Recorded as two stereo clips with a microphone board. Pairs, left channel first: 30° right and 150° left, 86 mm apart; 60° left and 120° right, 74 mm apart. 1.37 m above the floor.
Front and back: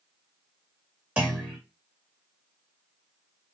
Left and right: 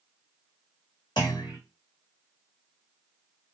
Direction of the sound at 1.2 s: 75° left.